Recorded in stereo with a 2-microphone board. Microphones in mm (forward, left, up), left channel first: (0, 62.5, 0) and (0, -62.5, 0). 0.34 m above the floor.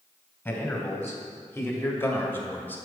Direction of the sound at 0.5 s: 20° left (ahead or behind).